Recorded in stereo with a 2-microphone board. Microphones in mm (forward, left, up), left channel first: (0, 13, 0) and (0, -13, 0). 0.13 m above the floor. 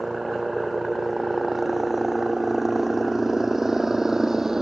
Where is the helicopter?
10° right (ahead or behind); by 4.6 s 20° right (ahead or behind).